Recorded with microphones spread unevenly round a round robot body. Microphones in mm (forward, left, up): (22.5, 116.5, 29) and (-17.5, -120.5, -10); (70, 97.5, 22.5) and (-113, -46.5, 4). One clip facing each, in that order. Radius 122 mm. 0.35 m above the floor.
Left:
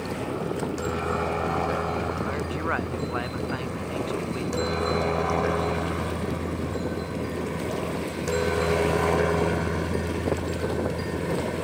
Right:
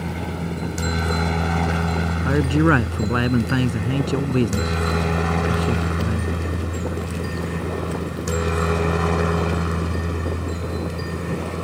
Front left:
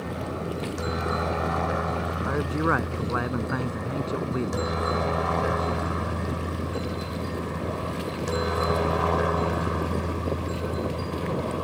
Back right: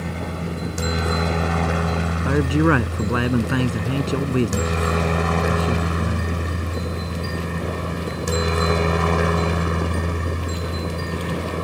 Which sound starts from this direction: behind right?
A helicopter, at 0.0 s.